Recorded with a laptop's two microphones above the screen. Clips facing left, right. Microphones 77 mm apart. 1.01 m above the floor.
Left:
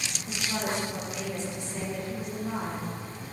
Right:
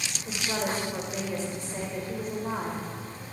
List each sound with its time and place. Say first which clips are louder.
0.2 s a woman speaking: right 1 dB; 45° right (ahead or behind), 3.5 m